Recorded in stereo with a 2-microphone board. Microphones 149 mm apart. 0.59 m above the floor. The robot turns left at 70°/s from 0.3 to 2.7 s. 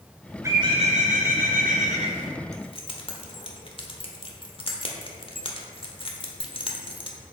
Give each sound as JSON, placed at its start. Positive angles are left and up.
{"t": 0.4, "sound": "a bird", "azimuth_deg": -20, "distance_m": 1.7}
{"t": 2.5, "sound": "keys jangling", "side_deg": 50, "distance_m": 1.2}